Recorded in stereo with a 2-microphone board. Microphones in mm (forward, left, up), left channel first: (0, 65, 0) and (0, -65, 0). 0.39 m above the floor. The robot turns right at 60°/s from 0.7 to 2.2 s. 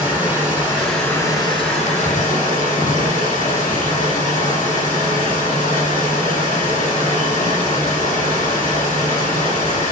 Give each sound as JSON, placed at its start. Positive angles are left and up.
{"t": 0.0, "sound": "running water", "azimuth_deg": -10, "distance_m": 1.6}